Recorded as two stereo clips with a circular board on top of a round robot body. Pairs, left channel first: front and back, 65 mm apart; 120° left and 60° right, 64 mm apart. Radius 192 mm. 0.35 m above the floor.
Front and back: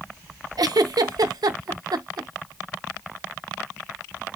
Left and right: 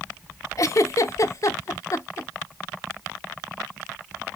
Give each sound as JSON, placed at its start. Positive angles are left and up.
{"t": 0.6, "sound": "a giggle", "azimuth_deg": 160, "distance_m": 0.6}